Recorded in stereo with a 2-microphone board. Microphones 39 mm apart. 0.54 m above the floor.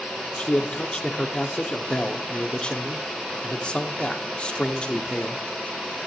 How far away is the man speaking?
About 1.0 m.